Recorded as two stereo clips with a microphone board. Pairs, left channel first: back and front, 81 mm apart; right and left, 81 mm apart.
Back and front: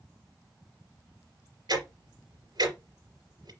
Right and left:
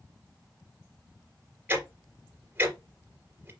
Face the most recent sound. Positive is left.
turn(degrees=25)